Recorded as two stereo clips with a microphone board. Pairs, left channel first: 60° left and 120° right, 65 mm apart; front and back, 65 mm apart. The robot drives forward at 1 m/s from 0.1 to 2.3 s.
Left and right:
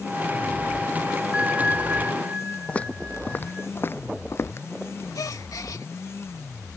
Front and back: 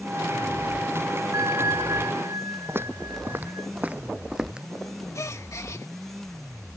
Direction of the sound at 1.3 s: 170° left.